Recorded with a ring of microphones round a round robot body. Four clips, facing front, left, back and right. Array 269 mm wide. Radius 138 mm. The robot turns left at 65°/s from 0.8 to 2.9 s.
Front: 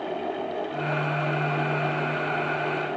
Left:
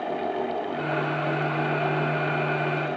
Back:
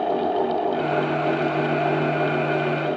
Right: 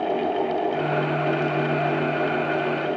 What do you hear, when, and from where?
Only background noise.